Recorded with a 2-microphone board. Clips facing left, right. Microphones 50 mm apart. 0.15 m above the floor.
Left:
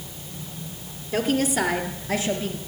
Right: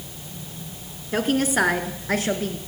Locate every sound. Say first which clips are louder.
1.1 s a woman speaking: right 1 dB; 30° right (ahead or behind), 1.7 m; by 2.6 s 55° right (ahead or behind), 2.0 m